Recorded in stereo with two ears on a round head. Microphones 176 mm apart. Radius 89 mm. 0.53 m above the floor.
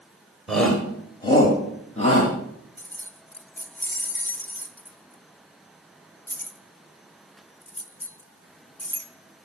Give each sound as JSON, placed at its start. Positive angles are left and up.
{"t": 0.5, "sound": "a shout", "side_deg": 0, "distance_m": 1.8}
{"t": 2.8, "sound": "keys jangling", "side_deg": 10, "distance_m": 0.9}